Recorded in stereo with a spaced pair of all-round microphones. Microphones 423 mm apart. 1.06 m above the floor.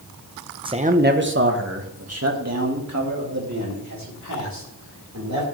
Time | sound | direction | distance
0.7 | a man speaking | 10° right (ahead or behind) | 0.8 m